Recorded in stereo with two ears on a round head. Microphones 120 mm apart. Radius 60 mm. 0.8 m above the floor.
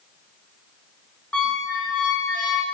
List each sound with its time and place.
1.3 s a squeak: 10° left (ahead or behind), 0.7 m